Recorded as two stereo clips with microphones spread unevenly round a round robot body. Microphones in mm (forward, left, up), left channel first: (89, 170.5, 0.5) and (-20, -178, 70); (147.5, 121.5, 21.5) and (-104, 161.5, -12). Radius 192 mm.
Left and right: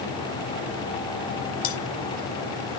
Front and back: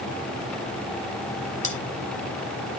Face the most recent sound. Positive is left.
turn(degrees=55)